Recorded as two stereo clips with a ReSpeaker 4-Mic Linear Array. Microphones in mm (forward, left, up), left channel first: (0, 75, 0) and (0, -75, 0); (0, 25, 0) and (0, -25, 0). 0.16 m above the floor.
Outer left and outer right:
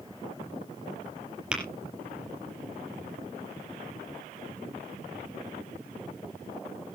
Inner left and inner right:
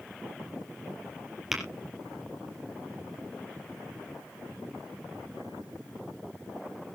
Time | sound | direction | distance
1.5 | tapping | 5° right (ahead or behind) | 5 m